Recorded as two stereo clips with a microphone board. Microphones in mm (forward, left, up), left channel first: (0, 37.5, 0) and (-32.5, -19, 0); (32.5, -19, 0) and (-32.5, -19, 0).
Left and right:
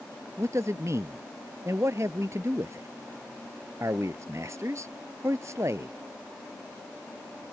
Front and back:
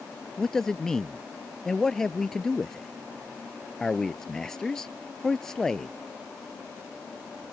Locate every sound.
0.4 s a man speaking: 80° right